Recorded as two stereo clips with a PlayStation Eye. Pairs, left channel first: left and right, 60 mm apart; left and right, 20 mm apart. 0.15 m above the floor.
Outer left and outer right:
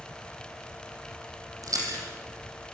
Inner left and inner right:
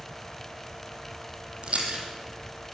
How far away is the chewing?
About 4.5 m.